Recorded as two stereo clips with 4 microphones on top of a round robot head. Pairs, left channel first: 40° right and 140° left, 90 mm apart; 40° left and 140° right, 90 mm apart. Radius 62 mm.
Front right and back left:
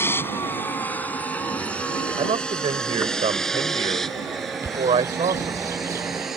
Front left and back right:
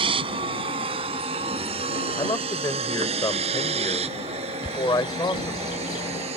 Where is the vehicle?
110° right; by 6.4 s 135° right.